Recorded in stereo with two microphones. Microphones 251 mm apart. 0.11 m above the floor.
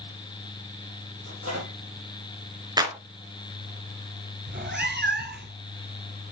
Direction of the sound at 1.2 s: 60° right (ahead or behind).